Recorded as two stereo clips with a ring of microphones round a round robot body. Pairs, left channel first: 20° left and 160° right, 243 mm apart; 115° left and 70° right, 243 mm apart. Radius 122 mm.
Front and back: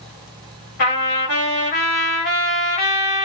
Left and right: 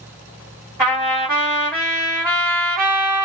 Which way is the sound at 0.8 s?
Straight ahead.